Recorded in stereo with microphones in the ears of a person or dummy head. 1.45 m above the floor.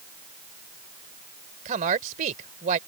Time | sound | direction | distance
1.6 | a woman speaking | 45° right (ahead or behind) | ?